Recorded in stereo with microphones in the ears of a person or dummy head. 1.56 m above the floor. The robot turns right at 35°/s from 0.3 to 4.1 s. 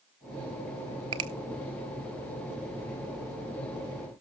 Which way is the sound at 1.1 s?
25° right (ahead or behind).